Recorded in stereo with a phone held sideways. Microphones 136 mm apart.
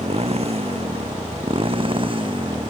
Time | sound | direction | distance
0.0 | a motorcycle | 50° right (ahead or behind) | ?